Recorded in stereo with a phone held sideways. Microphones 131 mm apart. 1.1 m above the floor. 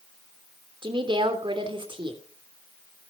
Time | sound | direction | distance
0.8 | a woman speaking | 40° right (ahead or behind) | 3 m